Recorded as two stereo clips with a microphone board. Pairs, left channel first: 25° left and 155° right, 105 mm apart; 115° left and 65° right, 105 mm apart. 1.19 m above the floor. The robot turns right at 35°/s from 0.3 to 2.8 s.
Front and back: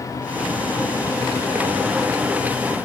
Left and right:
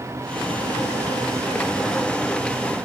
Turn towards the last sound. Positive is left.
No sound to turn to.